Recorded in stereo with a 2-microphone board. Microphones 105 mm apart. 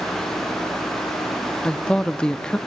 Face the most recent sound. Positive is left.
turn(degrees=10)  # may be behind; listen again after turning